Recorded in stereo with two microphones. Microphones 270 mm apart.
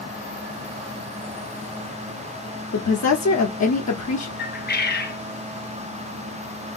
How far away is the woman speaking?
About 0.6 m.